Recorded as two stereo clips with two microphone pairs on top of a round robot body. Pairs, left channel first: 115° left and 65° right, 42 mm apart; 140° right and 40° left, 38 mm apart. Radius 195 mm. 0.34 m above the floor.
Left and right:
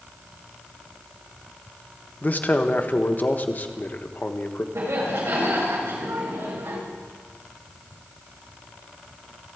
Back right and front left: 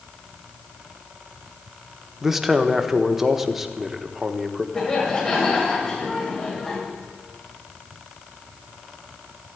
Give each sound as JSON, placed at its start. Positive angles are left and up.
{"t": 2.2, "sound": "a man speaking", "azimuth_deg": 140, "distance_m": 1.4}
{"t": 4.8, "sound": "laughter", "azimuth_deg": -80, "distance_m": 7.0}